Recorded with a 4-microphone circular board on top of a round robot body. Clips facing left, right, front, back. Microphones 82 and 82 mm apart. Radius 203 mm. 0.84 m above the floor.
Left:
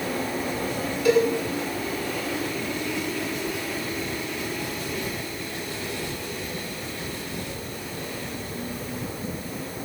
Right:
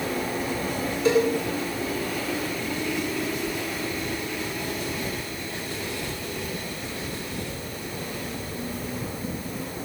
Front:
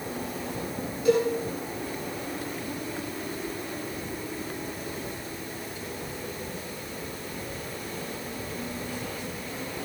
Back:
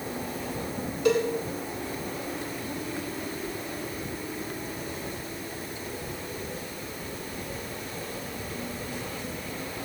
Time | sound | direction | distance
1.1 | a cowbell | 150° right | 10 m